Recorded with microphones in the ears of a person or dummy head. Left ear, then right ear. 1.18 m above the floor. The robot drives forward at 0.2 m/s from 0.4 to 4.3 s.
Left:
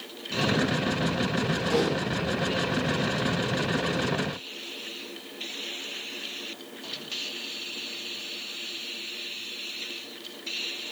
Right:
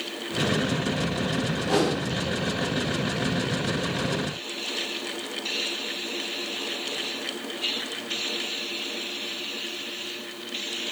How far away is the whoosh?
About 0.8 m.